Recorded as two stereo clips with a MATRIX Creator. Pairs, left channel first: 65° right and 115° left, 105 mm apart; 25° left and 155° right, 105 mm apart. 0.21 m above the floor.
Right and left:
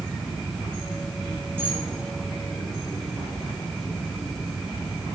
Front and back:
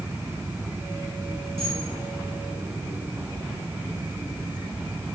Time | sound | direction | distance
1.6 | a camera shutter | 175° right | 2.5 m